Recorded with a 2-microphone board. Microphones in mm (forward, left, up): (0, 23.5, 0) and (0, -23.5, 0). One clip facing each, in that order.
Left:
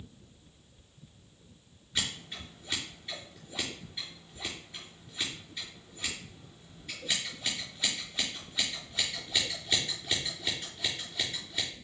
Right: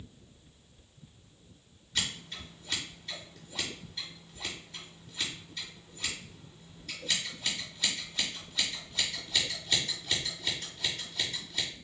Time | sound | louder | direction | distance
1.9 | scissors | even | 10° left (ahead or behind) | 4 m